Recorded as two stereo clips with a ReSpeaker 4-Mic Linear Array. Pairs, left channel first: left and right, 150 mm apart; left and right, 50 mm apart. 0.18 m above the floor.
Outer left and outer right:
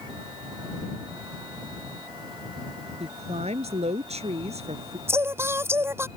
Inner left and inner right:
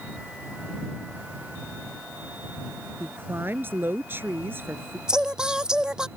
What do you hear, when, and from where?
3.0 s a woman speaking: 45° right (ahead or behind)
5.1 s singing: 15° right (ahead or behind)